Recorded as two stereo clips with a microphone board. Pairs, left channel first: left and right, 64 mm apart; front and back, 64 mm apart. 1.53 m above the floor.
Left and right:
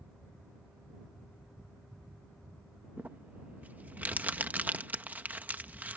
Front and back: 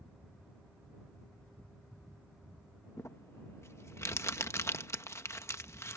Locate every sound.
3.0 s crumpling: 30° right